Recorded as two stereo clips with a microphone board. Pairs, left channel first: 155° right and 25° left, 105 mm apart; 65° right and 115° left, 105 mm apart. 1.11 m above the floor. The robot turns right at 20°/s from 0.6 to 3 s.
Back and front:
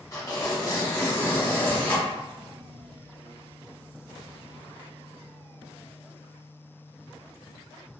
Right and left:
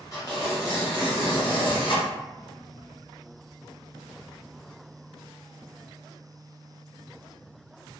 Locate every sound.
0.1 s tearing paper: 110° right, 1.0 m; by 2.1 s 80° right, 1.0 m